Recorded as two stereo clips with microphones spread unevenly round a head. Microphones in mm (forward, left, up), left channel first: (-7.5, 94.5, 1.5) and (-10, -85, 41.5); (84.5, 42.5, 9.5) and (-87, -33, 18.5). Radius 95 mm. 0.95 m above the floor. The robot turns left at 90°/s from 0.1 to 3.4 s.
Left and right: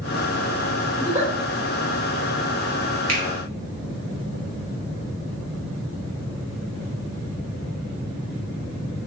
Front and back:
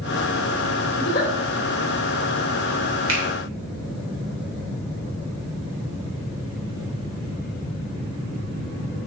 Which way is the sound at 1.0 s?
5° left.